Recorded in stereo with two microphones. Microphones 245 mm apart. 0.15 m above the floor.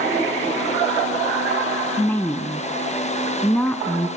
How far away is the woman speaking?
About 1.3 m.